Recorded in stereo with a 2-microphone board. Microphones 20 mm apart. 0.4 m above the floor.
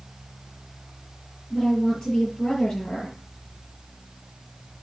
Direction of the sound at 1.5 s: 45° left (ahead or behind).